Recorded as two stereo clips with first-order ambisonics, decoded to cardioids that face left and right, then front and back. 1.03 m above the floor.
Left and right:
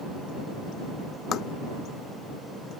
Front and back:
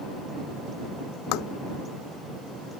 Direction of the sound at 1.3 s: 30° left.